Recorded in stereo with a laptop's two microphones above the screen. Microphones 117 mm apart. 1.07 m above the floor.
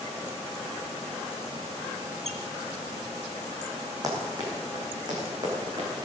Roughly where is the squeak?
Right.